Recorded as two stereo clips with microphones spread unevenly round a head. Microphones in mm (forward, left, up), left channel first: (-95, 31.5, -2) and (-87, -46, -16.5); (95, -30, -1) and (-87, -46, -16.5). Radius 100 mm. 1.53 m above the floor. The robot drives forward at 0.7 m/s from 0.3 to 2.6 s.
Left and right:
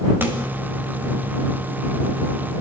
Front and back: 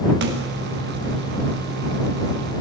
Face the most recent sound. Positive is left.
turn(degrees=-155)